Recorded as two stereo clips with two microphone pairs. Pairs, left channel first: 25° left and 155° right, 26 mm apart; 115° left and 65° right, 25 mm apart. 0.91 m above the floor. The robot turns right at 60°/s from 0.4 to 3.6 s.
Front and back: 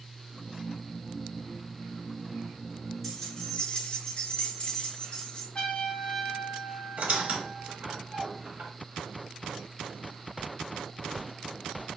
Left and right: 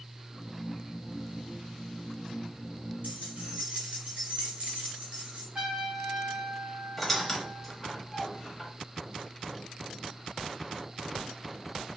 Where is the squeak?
155° right, 1.1 m.